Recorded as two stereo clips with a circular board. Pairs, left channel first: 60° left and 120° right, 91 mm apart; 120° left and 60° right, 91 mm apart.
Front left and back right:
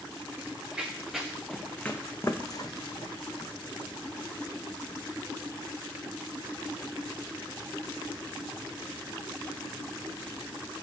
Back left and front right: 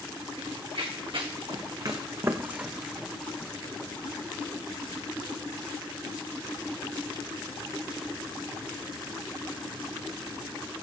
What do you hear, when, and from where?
0.4 s running footsteps: 45° right, 1.3 m; by 5.0 s 70° left, 1.5 m